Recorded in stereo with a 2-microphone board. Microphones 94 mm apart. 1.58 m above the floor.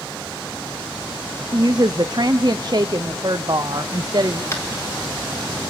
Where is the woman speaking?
50° right (ahead or behind), 0.5 m.